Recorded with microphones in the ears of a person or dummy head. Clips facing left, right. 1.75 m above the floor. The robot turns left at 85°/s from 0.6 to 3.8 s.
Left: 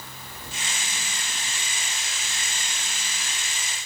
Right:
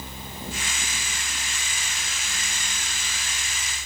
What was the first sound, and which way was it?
Only background noise.